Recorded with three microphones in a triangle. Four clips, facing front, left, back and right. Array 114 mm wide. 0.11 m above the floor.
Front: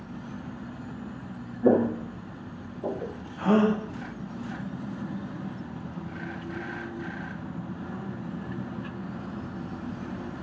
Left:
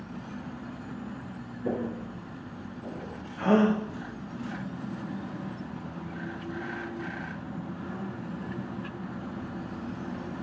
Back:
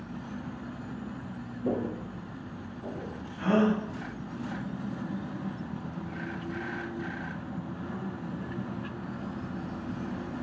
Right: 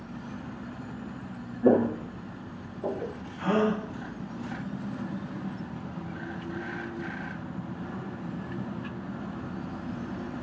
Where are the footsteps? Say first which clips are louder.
Right 10 dB, front 10 dB; 40° right, 0.9 m; by 3.1 s 35° right, 1.9 m.